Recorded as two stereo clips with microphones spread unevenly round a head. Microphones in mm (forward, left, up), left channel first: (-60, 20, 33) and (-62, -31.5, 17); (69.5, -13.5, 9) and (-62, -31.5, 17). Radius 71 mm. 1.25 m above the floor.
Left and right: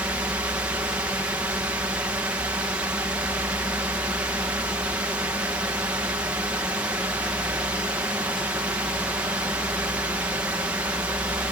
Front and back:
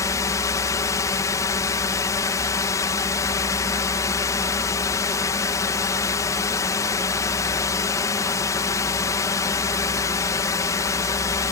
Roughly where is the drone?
Ahead right.